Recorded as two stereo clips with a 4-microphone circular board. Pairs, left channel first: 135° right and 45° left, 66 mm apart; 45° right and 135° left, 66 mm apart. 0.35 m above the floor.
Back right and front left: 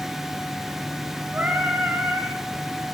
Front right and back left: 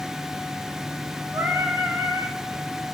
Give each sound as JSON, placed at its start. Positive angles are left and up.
{"t": 1.3, "sound": "singing", "azimuth_deg": 95, "distance_m": 1.0}